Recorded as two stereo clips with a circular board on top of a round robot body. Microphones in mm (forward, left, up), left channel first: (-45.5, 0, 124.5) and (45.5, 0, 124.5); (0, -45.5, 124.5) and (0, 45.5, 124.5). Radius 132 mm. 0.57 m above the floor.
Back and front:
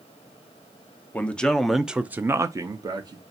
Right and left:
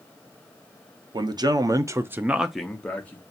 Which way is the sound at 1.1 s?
110° left.